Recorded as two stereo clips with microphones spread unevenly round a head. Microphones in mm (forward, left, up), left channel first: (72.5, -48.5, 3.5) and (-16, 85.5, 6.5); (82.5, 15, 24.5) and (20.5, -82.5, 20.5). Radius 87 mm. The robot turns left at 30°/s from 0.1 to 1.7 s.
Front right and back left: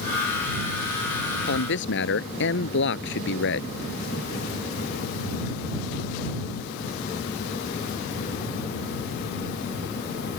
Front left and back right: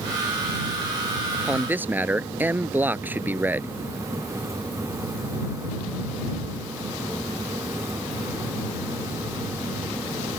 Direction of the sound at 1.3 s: 40° right.